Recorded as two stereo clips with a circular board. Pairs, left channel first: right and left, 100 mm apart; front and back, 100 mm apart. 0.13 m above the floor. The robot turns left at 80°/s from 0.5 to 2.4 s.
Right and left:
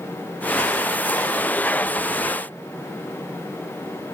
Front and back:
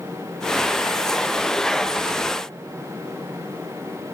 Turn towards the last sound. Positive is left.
No sound to turn to.